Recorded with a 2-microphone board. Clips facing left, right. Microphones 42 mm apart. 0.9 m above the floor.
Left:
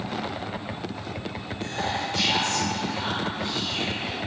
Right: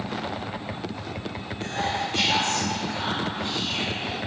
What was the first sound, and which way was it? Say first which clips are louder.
Whispering: right 1 dB; 45° right (ahead or behind).